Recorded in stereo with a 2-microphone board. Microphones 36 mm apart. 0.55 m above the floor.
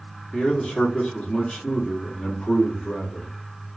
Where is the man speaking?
5° left (ahead or behind), 1.1 m.